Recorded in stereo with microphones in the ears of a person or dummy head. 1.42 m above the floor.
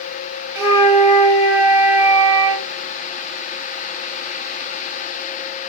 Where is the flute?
10° right (ahead or behind), 2 m.